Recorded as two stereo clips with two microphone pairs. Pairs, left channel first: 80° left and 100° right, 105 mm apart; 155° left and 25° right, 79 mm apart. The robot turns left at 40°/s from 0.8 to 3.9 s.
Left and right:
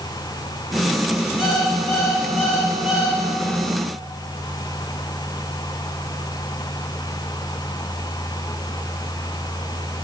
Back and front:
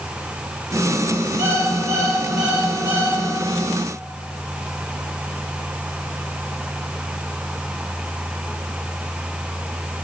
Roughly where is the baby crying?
I don't hear a baby crying.